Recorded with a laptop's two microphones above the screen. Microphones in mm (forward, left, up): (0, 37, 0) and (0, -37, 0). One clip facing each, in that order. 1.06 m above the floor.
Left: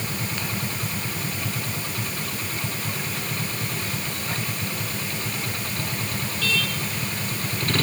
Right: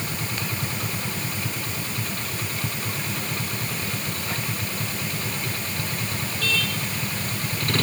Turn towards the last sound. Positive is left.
No sound to turn to.